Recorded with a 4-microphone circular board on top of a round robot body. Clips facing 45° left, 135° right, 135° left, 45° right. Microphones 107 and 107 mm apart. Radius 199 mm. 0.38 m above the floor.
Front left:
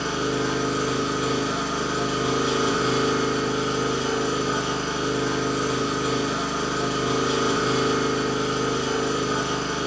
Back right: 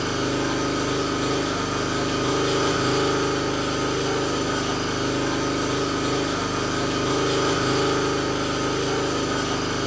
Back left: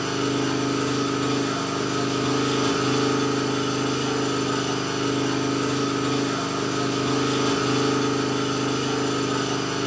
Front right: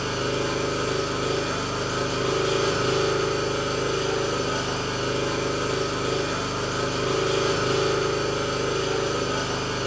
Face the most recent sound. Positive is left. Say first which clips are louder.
# back right 1 dB, back left 2 dB
turn(degrees=120)